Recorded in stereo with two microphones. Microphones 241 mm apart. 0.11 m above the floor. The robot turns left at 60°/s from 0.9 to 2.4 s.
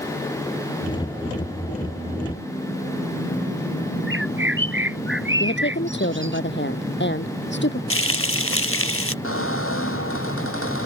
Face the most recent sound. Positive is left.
turn(degrees=60)  # may be behind; listen again after turning